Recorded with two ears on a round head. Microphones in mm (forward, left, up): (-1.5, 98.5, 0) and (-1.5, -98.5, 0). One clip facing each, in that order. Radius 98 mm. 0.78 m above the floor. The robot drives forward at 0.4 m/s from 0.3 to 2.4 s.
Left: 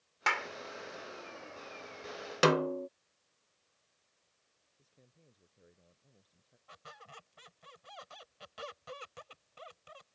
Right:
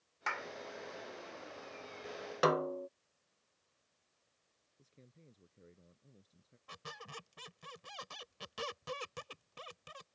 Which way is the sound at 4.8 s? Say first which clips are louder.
Right 4 dB; 35° right (ahead or behind).